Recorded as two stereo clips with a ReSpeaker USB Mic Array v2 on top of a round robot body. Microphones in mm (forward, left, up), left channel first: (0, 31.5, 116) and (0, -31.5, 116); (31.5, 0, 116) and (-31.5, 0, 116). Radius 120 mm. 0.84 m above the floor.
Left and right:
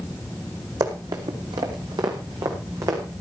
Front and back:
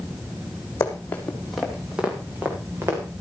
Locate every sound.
0.8 s running footsteps: 55° right, 2 m; by 3.0 s 125° right, 3.5 m